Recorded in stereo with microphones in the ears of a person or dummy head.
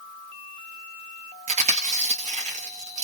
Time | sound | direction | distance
1.5 | chewing | 35° right (ahead or behind) | 0.7 m